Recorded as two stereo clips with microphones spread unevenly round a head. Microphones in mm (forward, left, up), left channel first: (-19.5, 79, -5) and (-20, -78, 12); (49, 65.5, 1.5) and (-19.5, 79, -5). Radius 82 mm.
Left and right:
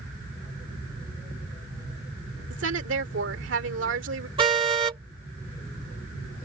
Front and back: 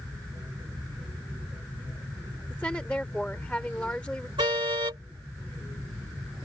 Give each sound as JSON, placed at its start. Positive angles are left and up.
{"t": 2.5, "sound": "a woman speaking", "azimuth_deg": -95}
{"t": 4.4, "sound": "a car horn", "azimuth_deg": -150}